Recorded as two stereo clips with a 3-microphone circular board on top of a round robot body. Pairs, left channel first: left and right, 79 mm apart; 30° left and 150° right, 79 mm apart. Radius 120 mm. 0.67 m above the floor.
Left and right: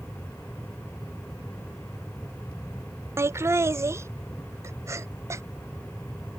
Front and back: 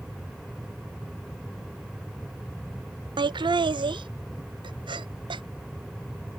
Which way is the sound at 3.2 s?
145° right.